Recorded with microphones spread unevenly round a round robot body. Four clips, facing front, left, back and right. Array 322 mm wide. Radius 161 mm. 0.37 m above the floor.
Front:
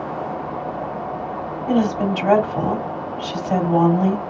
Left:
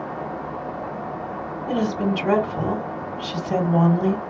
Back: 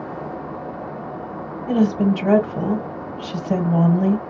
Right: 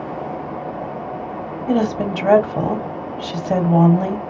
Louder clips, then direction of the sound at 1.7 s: Right 4 dB, back 1 dB; 75° right.